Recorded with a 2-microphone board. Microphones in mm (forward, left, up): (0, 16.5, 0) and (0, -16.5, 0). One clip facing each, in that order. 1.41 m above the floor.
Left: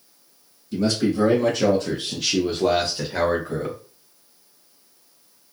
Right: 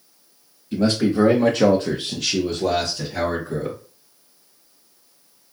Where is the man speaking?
70° right (ahead or behind), 1.0 m; by 3.8 s 55° left (ahead or behind), 1.3 m.